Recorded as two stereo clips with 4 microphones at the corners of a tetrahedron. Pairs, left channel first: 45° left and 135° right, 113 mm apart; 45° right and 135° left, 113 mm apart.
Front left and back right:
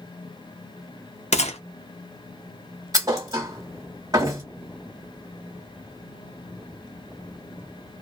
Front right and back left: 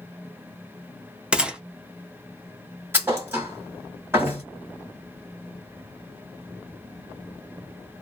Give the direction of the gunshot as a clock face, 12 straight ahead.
10 o'clock.